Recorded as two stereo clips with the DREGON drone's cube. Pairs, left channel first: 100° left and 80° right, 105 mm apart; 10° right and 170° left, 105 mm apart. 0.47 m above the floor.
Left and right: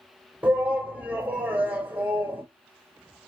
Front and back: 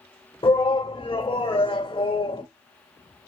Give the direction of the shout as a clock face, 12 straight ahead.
12 o'clock.